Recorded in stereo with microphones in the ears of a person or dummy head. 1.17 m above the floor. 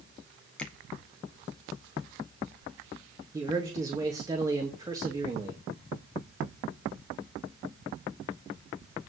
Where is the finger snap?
10° left (ahead or behind), 2.0 m.